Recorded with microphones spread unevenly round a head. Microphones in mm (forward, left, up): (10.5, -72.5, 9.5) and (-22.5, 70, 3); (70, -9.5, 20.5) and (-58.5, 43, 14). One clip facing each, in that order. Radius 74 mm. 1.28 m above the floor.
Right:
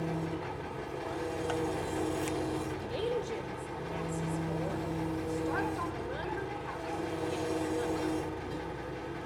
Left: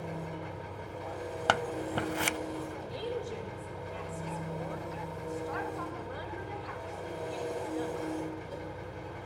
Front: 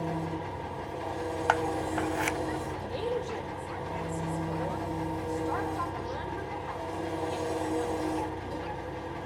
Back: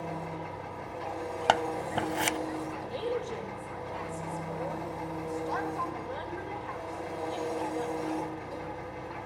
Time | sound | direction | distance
0.0 | an engine running | 85° right | 3.5 m
1.5 | scissors | 105° left | 0.5 m
2.9 | a woman speaking | 100° right | 6 m